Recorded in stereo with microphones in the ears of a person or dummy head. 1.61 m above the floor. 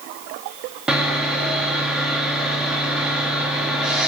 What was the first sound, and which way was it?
Sawing, centre (ahead or behind).